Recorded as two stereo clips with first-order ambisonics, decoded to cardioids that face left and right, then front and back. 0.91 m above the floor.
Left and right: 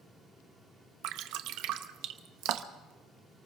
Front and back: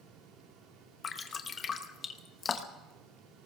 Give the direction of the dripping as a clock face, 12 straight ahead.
2 o'clock.